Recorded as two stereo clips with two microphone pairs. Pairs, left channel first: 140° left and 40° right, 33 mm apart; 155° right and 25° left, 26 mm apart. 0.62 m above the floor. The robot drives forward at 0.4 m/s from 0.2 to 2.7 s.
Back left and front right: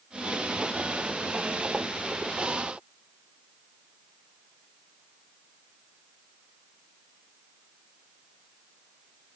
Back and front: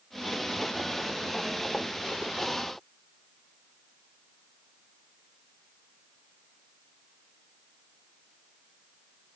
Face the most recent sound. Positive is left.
No sound to turn to.